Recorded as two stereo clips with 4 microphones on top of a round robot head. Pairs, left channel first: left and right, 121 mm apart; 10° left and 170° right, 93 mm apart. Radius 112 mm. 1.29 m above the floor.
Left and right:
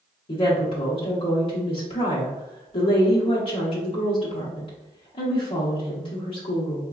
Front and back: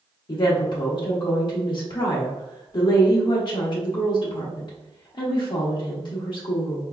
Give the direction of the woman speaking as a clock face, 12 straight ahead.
10 o'clock.